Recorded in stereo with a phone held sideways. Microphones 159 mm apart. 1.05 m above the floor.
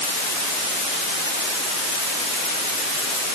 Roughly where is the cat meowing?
No cat meowing in this recording.